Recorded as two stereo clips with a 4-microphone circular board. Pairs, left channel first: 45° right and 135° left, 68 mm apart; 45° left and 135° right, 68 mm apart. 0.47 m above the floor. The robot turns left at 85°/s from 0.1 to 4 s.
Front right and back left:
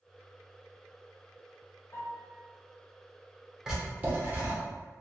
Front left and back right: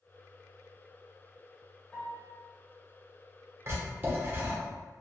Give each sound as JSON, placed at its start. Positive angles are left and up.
{"t": 1.9, "sound": "a piano", "azimuth_deg": -45, "distance_m": 1.1}
{"t": 3.7, "sound": "writing", "azimuth_deg": -150, "distance_m": 1.1}